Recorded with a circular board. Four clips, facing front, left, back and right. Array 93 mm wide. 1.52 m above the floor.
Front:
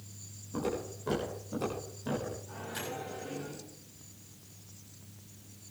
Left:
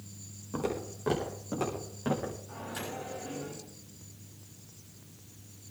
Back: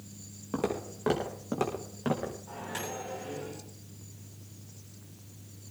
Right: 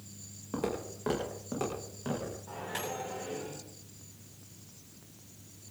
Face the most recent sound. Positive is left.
turn(degrees=-130)